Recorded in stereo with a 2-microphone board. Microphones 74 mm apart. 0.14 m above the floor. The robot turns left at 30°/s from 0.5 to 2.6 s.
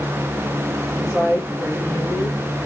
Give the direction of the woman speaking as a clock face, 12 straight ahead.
5 o'clock.